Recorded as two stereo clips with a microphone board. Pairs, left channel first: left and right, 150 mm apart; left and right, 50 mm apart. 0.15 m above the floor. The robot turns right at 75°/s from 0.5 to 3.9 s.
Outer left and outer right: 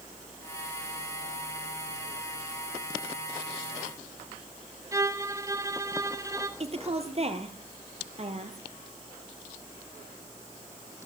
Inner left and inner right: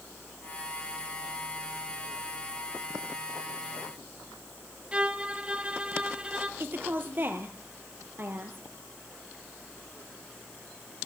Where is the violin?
20° right (ahead or behind), 1.4 m.